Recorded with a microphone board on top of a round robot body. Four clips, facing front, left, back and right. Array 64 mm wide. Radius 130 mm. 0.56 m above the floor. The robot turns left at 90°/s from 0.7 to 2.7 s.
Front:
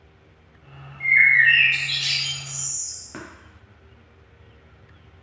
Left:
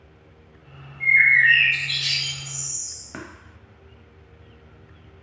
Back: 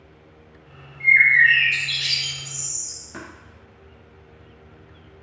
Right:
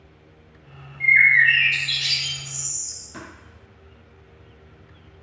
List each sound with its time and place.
1.0 s a bird: 95° right, 0.5 m; by 3.0 s 115° left, 0.5 m
3.1 s tapping: 70° left, 0.8 m